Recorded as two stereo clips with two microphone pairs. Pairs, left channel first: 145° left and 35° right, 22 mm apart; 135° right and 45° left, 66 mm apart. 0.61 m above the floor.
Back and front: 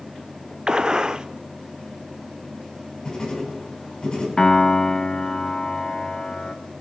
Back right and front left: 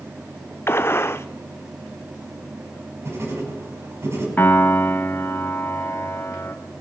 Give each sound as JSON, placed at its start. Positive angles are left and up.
{"t": 0.7, "sound": "a gunshot", "azimuth_deg": -85, "distance_m": 0.7}
{"t": 3.0, "sound": "writing", "azimuth_deg": 90, "distance_m": 5.5}
{"t": 4.4, "sound": "a piano", "azimuth_deg": 180, "distance_m": 1.4}